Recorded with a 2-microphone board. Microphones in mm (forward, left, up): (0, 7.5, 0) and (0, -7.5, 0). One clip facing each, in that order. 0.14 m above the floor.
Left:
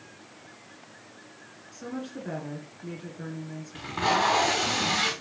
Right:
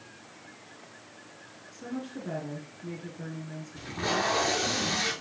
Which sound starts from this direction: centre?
A woman speaking, at 1.7 s.